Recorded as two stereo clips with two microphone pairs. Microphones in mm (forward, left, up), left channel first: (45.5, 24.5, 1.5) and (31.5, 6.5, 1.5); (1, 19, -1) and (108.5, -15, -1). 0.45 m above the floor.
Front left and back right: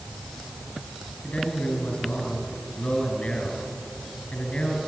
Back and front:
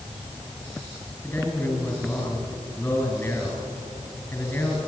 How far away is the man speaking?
About 4 m.